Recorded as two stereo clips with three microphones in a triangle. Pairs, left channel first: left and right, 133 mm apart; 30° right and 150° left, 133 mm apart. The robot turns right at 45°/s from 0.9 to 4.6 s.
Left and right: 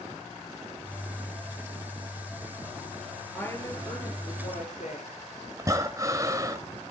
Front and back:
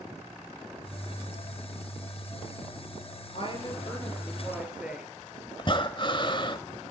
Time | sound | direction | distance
3.3 | a woman speaking | 10° left | 7 m
5.6 | breathing | 45° right | 1.5 m